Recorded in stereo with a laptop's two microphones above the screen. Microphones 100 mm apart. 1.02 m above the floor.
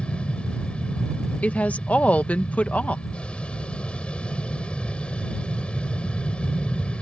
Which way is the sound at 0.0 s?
10° left (ahead or behind).